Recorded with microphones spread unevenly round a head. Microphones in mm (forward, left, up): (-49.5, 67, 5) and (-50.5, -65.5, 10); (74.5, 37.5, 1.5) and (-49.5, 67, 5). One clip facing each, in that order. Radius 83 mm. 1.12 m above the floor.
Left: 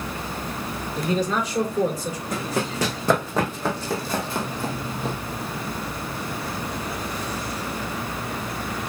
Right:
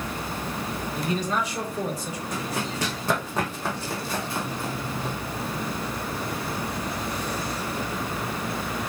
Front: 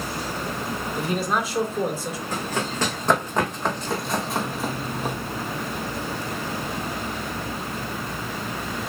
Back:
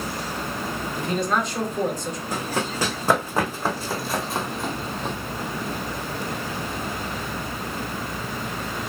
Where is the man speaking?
70° left, 4 m.